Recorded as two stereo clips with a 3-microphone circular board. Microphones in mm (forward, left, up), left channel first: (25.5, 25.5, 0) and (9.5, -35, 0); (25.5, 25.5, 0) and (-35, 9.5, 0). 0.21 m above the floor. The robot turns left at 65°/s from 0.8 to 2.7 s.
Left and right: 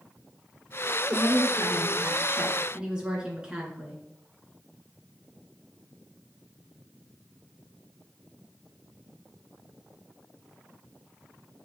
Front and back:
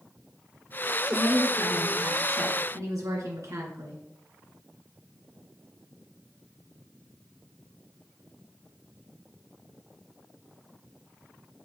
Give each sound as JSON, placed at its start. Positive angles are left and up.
{"t": 1.1, "sound": "a woman speaking", "azimuth_deg": -75, "distance_m": 3.0}